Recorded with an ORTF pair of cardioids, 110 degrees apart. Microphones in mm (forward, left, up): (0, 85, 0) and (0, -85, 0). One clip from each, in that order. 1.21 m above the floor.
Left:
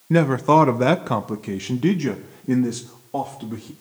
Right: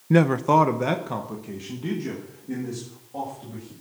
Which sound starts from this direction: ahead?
A man speaking, at 0.1 s.